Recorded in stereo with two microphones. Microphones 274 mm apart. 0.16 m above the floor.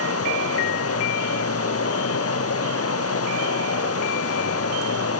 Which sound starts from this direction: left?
Running water, at 0.0 s.